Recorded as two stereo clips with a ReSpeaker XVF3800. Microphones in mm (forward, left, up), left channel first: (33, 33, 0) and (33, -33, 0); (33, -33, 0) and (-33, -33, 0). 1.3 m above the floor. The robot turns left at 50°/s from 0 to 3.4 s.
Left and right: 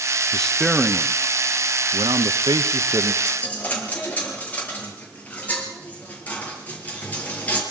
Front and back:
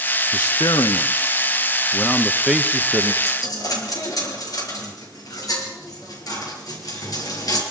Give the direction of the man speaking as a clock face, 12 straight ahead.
12 o'clock.